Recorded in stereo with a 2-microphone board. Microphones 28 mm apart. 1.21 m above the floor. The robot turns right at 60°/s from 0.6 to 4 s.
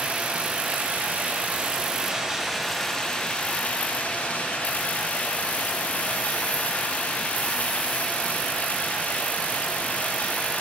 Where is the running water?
120° right, 1.0 m; by 10.6 s 85° left, 1.0 m.